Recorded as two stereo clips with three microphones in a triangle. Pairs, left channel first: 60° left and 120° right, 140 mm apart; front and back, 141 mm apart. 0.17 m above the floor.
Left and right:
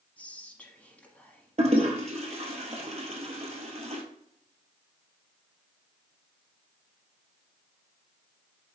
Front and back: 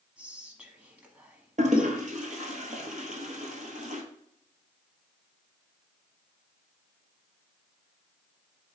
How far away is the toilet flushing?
About 1.1 m.